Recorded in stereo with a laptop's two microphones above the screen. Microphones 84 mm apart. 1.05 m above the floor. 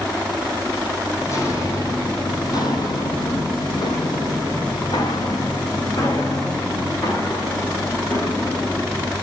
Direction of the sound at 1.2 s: 30° left (ahead or behind).